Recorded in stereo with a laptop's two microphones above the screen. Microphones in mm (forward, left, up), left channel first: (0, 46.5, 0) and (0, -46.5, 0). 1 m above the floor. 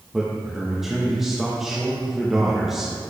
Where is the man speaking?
5° right (ahead or behind), 1.1 m.